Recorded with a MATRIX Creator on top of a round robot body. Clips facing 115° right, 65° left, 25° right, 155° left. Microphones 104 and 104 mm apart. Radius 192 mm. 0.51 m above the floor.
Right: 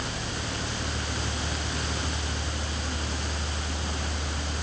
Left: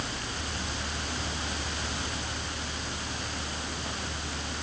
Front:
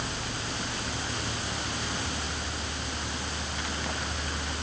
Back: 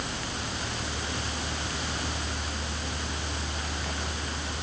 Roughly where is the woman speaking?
No woman speaking in this recording.